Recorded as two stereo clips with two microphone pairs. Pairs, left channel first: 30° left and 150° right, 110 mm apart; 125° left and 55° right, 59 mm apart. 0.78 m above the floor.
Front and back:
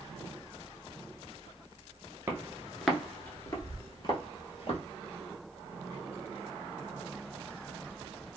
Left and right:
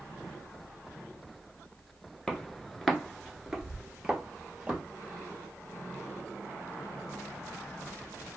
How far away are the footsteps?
About 0.8 m.